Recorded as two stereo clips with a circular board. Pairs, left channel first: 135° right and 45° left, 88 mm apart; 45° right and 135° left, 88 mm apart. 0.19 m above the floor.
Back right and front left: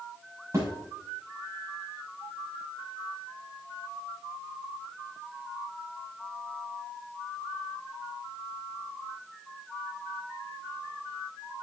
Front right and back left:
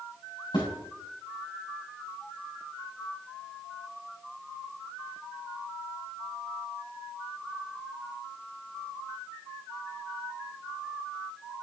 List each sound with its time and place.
0.5 s a thud: 15° right, 6.5 m